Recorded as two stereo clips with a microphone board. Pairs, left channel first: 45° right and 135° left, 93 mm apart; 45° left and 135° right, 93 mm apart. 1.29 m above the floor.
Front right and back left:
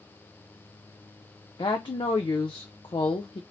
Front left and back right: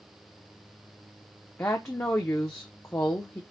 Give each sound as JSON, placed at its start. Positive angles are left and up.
{"t": 1.6, "sound": "a woman speaking", "azimuth_deg": -15, "distance_m": 0.6}